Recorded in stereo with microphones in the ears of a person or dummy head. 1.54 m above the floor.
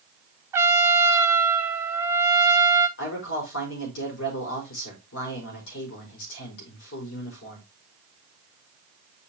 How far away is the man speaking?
About 4.5 m.